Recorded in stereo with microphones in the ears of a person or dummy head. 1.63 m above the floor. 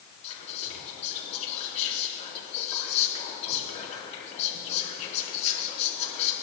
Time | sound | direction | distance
0.2 | whispering | 30° left (ahead or behind) | 3.5 m